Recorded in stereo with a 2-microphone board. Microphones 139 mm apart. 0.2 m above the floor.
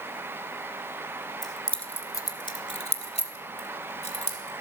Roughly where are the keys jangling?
Centre.